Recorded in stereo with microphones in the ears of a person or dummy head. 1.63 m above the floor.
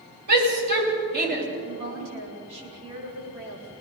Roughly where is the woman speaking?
Right.